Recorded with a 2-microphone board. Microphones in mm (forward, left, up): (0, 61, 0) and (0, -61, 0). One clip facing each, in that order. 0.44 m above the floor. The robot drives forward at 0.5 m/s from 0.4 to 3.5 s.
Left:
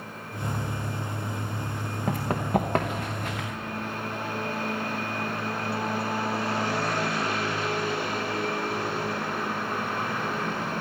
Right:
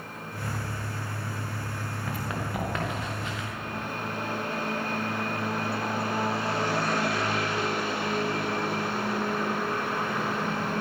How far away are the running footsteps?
About 2.5 m.